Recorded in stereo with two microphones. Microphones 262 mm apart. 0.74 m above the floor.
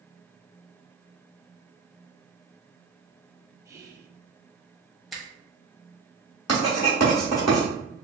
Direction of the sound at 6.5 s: 70° left (ahead or behind).